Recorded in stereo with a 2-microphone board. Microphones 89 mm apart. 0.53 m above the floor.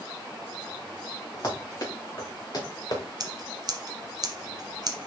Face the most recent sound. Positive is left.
turn(degrees=-50)  # may be behind; listen again after turning